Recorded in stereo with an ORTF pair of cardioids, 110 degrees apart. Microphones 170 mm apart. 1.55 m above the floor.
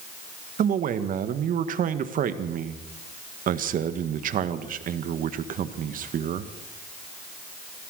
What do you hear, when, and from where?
0.6 s a man speaking: 55° right, 1.8 m